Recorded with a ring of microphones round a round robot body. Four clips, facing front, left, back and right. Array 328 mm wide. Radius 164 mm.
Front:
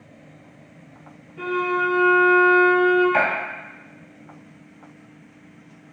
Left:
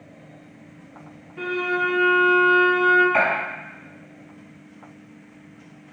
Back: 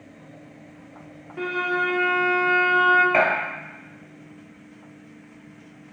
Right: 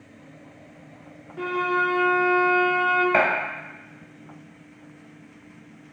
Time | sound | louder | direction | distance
1.4 | a violin | even, front 2 dB | 170° right | 0.8 m
3.1 | a gunshot | even, back 1 dB | 115° right | 1.8 m